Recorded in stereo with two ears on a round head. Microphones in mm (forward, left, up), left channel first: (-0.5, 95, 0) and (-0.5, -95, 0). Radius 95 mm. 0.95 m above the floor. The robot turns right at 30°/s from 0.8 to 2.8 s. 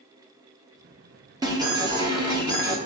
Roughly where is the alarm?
Centre.